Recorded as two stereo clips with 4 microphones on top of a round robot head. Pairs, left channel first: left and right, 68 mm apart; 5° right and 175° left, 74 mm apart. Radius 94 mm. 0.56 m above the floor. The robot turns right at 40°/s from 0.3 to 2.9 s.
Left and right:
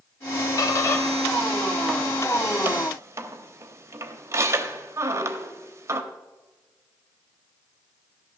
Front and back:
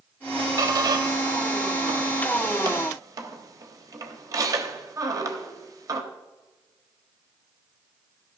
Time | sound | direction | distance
0.6 | a squeak | 130° left | 1.1 m